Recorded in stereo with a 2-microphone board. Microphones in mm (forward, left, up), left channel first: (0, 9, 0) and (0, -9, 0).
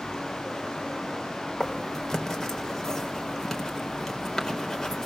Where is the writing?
25° left (ahead or behind), 4 m.